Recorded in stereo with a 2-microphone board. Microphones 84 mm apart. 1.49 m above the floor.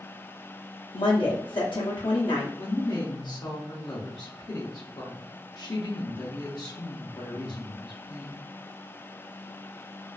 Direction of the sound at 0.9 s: 80° left.